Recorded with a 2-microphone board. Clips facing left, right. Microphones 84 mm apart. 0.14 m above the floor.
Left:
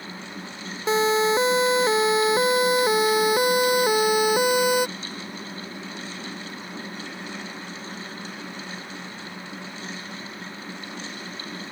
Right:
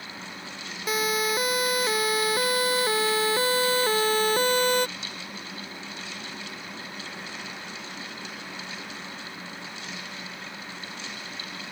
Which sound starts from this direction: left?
A siren, at 0.9 s.